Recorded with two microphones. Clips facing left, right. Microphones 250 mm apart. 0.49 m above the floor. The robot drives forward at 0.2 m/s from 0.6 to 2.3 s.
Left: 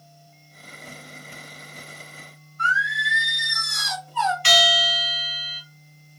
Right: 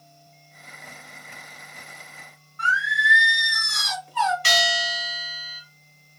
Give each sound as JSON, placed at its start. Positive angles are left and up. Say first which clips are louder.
{"t": 2.6, "sound": "singing", "louder": "even", "side_deg": -75, "distance_m": 0.7}
{"t": 4.4, "sound": "a bell", "louder": "left 3 dB", "side_deg": -50, "distance_m": 2.0}